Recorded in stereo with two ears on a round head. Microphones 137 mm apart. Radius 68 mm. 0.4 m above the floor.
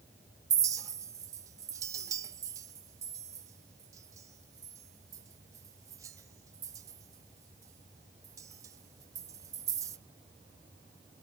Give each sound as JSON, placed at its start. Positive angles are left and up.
{"t": 0.5, "sound": "a clink", "side_deg": -20, "distance_m": 0.6}